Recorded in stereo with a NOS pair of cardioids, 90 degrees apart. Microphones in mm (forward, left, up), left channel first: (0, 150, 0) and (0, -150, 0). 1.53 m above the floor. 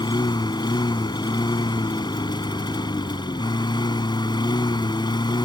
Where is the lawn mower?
15° left.